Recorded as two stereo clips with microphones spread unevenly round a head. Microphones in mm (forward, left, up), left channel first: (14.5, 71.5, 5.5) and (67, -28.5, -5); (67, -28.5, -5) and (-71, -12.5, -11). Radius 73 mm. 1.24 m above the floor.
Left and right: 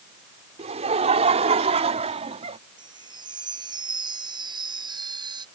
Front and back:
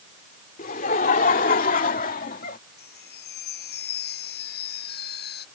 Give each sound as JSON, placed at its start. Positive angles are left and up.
{"t": 0.6, "sound": "laughter", "azimuth_deg": -35}
{"t": 2.8, "sound": "a chime", "azimuth_deg": -10}